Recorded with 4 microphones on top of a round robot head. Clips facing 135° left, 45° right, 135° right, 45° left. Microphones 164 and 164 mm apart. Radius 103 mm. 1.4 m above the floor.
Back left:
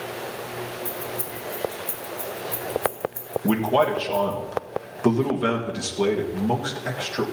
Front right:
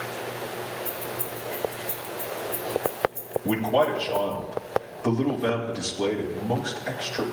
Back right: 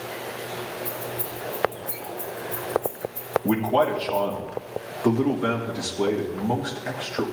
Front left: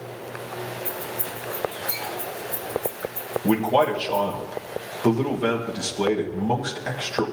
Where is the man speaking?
110° left, 1.7 m.